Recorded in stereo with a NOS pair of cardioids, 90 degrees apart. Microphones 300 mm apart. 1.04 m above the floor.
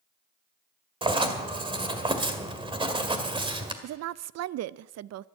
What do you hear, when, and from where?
1.0 s writing: 15° right, 1.9 m
3.8 s a woman speaking: 60° right, 0.5 m